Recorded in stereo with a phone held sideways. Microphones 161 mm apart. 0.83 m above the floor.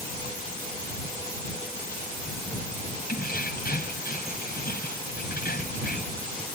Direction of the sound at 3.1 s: 65° left (ahead or behind).